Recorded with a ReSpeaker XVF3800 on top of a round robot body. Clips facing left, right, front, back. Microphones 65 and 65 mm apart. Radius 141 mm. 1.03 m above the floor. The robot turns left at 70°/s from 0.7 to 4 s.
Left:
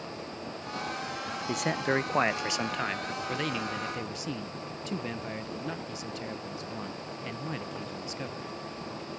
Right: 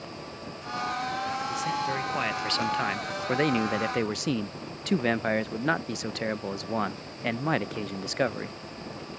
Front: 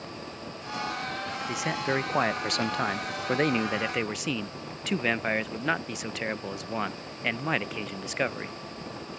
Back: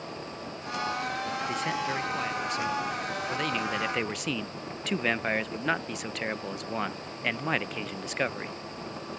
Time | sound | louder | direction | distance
1.5 | a man speaking | left 5 dB, front 4 dB | 90° left | ?